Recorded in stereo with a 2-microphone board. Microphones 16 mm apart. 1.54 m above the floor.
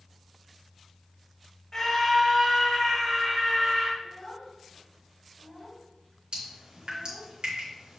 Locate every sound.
1.7 s a scream: 25° left (ahead or behind), 2.5 m; by 3.9 s centre (ahead or behind), 3.5 m
4.0 s a child speaking: 10° left (ahead or behind), 3.5 m
6.3 s dripping: 80° right, 2.5 m